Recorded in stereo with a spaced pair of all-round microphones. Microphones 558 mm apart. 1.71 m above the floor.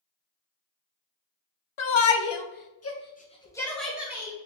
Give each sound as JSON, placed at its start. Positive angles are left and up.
{"t": 1.8, "sound": "a shout", "side_deg": 60, "distance_m": 0.6}